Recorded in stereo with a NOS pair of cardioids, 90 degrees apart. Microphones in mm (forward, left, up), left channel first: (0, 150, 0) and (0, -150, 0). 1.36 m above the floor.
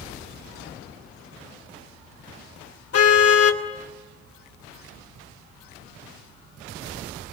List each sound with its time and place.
2.9 s a car horn: 55° left, 2.5 m